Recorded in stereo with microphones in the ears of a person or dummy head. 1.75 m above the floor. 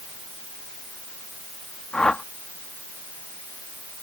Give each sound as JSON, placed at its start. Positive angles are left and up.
{"t": 1.9, "sound": "a whoosh", "side_deg": 0}